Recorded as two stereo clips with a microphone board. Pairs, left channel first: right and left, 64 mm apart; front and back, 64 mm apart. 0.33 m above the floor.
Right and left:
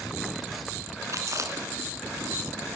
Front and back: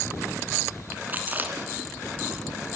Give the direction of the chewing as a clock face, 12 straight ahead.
8 o'clock.